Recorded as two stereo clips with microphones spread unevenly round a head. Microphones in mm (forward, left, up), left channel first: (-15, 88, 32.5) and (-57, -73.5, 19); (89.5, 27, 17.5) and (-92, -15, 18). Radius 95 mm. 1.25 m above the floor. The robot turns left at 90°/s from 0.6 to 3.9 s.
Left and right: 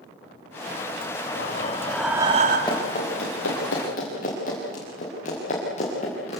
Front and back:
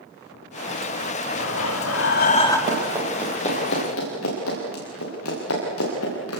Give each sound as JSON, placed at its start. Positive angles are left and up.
{"t": 1.4, "sound": "breathing", "azimuth_deg": 45, "distance_m": 2.5}
{"t": 2.7, "sound": "running footsteps", "azimuth_deg": 145, "distance_m": 8.5}